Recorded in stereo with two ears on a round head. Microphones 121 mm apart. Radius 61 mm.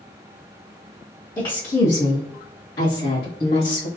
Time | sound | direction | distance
1.4 | a woman speaking | 25° left (ahead or behind) | 0.8 m